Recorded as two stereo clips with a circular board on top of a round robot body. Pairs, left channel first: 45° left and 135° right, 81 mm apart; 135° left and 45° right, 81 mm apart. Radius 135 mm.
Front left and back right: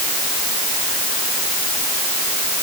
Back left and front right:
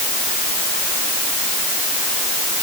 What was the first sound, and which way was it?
Only background noise.